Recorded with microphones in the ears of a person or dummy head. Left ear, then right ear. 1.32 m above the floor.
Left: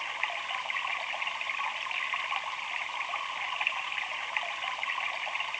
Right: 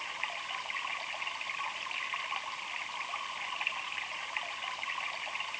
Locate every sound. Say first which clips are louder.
0.0 s running water: left 4 dB; 30° left (ahead or behind)